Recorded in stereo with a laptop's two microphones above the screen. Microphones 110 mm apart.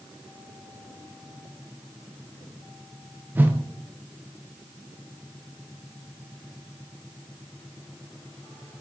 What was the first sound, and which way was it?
A whoosh, 20° right (ahead or behind).